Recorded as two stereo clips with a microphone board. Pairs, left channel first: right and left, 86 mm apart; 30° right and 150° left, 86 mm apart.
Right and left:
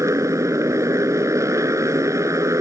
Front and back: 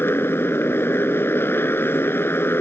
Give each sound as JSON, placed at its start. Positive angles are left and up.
{"t": 0.0, "sound": "a motorcycle", "azimuth_deg": 35}